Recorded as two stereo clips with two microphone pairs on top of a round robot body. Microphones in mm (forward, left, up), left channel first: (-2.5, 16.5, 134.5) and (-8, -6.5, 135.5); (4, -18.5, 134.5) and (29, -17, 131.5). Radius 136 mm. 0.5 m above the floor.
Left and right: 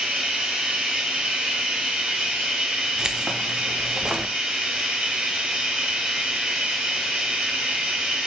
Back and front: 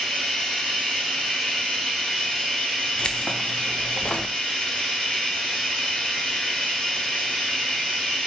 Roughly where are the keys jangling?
Behind right.